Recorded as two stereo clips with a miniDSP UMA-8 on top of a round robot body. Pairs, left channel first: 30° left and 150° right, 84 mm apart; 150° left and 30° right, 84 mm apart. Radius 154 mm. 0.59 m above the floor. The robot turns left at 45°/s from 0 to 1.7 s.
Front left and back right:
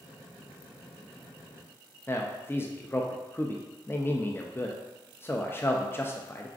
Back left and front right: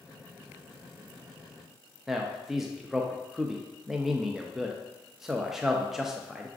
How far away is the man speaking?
About 0.6 m.